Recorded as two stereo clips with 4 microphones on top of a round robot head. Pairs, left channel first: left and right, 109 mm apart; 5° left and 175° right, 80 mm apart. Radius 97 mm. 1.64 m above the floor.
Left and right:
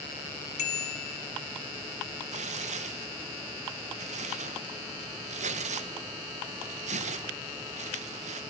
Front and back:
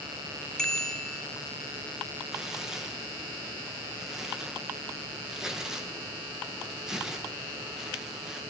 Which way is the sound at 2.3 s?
90° right.